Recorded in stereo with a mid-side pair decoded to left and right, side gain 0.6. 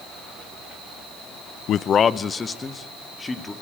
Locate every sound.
1.7 s a man speaking: 55° left, 0.5 m; by 3.5 s 20° left, 2.5 m